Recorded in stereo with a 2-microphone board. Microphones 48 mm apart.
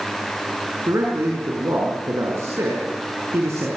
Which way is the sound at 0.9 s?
80° right.